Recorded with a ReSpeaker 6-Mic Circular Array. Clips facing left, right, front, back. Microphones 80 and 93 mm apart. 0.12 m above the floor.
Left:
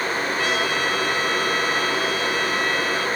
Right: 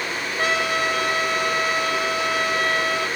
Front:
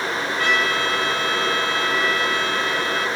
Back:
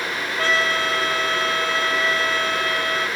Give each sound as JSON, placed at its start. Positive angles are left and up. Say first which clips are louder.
{"t": 0.4, "sound": "a trumpet", "louder": "right 4 dB, back 1 dB", "azimuth_deg": -125, "distance_m": 2.5}